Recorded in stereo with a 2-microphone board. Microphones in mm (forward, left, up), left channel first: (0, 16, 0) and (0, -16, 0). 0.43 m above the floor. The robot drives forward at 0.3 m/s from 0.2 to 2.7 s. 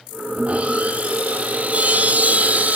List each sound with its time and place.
0.4 s sawing: 45° right (ahead or behind), 3.5 m; by 2.8 s 55° right (ahead or behind), 3 m